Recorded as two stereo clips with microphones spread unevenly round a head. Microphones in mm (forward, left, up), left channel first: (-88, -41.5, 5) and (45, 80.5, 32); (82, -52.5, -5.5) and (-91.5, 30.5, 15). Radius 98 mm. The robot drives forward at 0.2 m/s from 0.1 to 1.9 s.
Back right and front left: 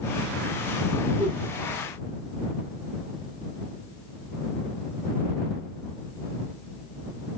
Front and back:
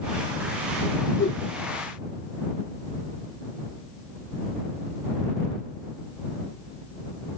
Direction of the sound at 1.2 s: 55° right.